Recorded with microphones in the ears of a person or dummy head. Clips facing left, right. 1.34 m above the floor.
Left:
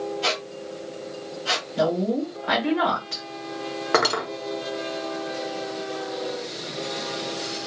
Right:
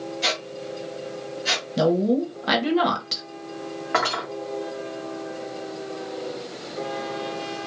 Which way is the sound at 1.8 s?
55° right (ahead or behind).